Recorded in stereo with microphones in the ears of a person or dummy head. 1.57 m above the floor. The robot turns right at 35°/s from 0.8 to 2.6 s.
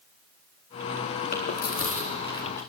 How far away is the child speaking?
I don't hear a child speaking.